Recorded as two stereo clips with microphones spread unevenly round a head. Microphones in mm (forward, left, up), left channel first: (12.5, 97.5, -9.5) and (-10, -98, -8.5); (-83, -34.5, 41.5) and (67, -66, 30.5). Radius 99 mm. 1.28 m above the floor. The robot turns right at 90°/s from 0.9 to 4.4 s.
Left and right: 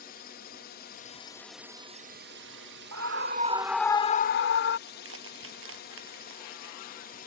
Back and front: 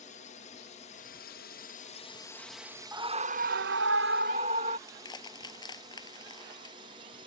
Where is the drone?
125° left; by 7.3 s 40° left.